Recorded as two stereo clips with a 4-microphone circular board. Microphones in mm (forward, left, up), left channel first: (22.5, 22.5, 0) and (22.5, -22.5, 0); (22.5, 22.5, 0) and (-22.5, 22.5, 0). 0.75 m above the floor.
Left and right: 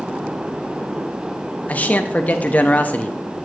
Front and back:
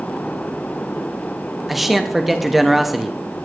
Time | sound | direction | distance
1.7 | a man speaking | 95° left | 0.7 m